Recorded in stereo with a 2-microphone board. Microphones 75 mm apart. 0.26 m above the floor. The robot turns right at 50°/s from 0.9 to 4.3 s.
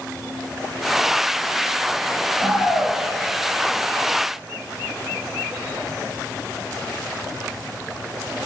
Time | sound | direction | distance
2.4 | a shout | 50° left | 6 m